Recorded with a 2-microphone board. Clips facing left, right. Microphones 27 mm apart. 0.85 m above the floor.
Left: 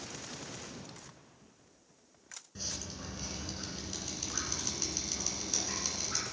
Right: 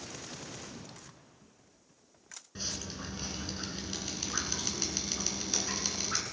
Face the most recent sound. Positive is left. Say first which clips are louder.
# right 3 dB
turn(degrees=-30)  # may be behind; listen again after turning